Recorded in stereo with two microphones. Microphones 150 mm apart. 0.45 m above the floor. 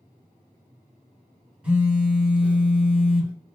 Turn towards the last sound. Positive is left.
turn(degrees=-10)  # may be behind; listen again after turning